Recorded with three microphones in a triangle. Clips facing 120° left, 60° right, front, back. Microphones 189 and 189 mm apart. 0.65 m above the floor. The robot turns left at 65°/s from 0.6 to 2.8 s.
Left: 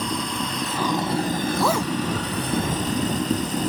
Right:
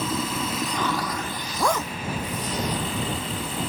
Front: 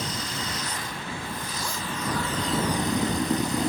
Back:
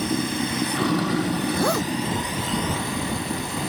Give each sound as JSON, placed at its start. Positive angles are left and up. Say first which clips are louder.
{"t": 0.0, "sound": "running water", "louder": "even, back 10 dB", "azimuth_deg": -145}
{"t": 1.5, "sound": "a zipper", "louder": "even, back 12 dB", "azimuth_deg": -145}